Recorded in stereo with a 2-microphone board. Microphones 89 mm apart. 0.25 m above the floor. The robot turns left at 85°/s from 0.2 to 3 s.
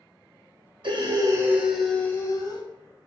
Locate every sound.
0.8 s breathing: 100° right, 0.6 m; by 2.6 s 110° left, 0.6 m